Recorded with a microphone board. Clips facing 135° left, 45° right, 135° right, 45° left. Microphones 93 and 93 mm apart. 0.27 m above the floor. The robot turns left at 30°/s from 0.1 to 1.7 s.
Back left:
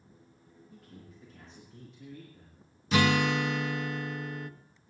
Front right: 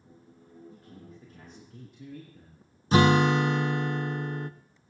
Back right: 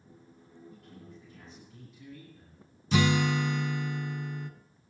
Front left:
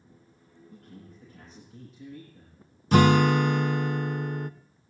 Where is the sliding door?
No sliding door in this recording.